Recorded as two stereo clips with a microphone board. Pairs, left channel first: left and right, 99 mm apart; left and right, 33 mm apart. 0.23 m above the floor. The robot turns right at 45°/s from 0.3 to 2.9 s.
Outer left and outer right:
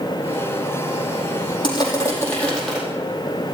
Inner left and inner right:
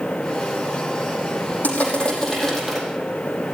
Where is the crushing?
130° left, 5 m; by 2.8 s straight behind, 5 m.